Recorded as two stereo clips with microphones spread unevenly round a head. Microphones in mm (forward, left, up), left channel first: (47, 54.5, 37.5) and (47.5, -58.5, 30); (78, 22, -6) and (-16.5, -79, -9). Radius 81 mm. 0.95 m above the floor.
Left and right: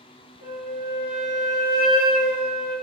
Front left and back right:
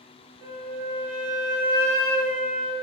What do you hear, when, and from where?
0.4 s a flute: 165° left, 1.6 m